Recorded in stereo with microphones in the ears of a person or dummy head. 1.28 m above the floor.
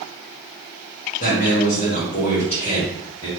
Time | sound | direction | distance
1.2 | a man speaking | 45° left (ahead or behind) | 1.4 m